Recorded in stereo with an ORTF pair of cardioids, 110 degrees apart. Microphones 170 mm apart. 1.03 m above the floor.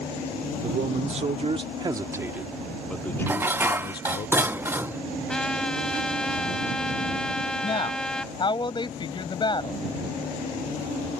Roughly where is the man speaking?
Ahead right.